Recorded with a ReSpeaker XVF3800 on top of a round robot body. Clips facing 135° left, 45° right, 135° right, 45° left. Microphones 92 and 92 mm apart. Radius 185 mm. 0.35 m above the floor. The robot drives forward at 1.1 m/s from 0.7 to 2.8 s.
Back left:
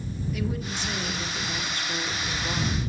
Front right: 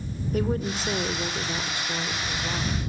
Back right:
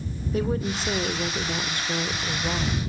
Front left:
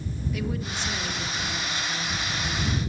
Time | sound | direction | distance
0.3 | a woman speaking | 85° right | 2.5 m